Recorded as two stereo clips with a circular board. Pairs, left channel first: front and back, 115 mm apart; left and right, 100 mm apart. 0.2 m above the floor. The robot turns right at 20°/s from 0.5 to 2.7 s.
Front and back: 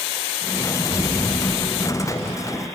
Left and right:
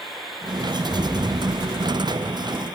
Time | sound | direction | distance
0.9 | an explosion | 160° right | 1.2 m